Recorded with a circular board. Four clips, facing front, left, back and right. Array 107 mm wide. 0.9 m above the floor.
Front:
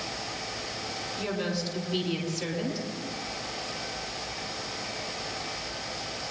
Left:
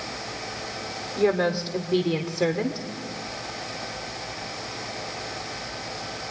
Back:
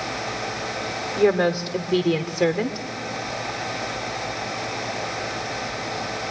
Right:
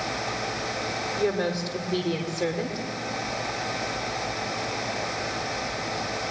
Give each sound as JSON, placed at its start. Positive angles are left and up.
{"t": 1.2, "sound": "a woman speaking", "azimuth_deg": 160, "distance_m": 2.0}